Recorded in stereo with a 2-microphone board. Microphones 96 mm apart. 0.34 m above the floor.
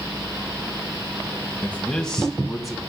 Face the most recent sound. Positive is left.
turn(degrees=0)  # may be behind; listen again after turning